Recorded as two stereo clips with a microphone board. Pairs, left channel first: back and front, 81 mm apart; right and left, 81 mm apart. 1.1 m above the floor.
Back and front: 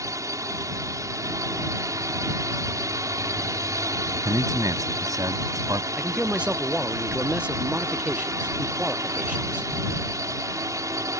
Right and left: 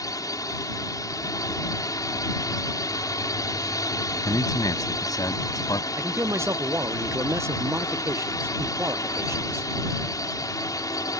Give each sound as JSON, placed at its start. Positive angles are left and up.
{"t": 0.0, "sound": "a drone", "azimuth_deg": -45}
{"t": 4.2, "sound": "a man speaking", "azimuth_deg": -45}
{"t": 6.0, "sound": "a man speaking", "azimuth_deg": 70}